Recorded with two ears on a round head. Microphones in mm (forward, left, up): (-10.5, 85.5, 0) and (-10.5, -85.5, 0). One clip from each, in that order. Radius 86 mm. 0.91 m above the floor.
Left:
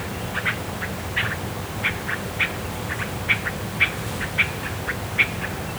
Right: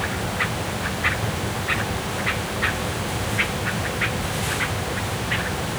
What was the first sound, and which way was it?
Only background noise.